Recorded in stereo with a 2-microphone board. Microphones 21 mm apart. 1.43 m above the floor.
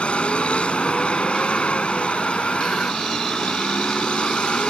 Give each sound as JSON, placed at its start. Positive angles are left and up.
{"t": 0.0, "sound": "a vehicle", "side_deg": 70}